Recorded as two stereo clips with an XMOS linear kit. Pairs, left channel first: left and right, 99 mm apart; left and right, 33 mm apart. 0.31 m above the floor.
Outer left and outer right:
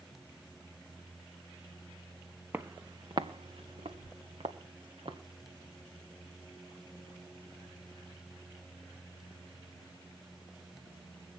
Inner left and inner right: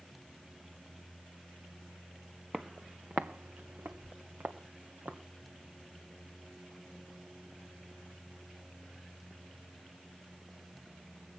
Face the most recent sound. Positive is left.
turn(degrees=-70)  # may be behind; listen again after turning